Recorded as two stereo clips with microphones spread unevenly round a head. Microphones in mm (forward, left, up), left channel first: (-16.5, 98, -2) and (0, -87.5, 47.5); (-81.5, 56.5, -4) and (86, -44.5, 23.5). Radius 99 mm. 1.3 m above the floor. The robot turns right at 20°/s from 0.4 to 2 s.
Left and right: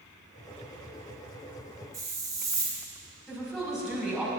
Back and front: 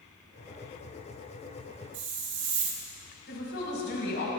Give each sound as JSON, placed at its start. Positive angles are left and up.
{"t": 1.9, "sound": "a hiss", "azimuth_deg": -10, "distance_m": 3.0}
{"t": 3.3, "sound": "a woman speaking", "azimuth_deg": -175, "distance_m": 5.0}